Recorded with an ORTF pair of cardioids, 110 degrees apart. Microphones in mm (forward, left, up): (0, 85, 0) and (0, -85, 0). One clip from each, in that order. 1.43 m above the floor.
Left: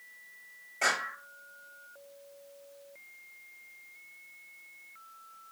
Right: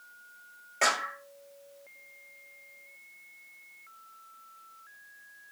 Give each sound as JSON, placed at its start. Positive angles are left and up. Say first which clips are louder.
{"t": 0.8, "sound": "a clap", "louder": "right 2 dB", "azimuth_deg": -45, "distance_m": 6.5}